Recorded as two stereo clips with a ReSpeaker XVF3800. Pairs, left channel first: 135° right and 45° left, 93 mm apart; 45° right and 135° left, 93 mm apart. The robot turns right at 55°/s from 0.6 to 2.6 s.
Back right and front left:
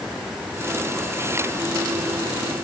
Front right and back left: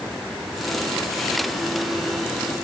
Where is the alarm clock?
I don't hear an alarm clock.